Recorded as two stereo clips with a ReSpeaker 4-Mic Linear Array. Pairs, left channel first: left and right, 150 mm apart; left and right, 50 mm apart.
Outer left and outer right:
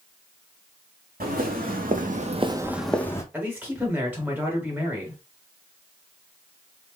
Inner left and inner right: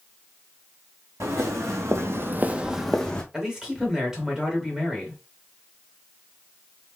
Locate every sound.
1.2 s footsteps: 75° right (ahead or behind), 1.2 m; by 3.2 s 20° left (ahead or behind), 0.8 m
3.3 s a man speaking: 10° right (ahead or behind), 1.2 m